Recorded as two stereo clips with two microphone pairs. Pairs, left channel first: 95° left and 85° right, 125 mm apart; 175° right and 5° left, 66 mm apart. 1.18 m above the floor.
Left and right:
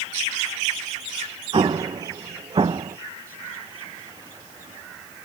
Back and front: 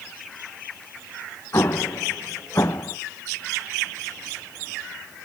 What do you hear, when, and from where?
1.5 s an explosion: 135° right, 0.5 m